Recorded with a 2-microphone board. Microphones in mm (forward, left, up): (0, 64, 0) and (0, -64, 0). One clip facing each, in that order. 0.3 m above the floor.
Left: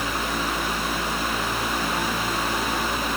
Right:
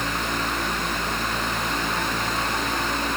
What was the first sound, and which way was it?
Only background noise.